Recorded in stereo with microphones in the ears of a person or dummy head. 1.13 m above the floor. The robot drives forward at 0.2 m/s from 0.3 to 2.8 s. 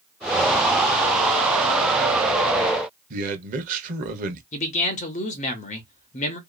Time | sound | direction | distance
3.1 | a man speaking | 45° right (ahead or behind) | 0.8 m
4.5 | a man speaking | 30° left (ahead or behind) | 0.8 m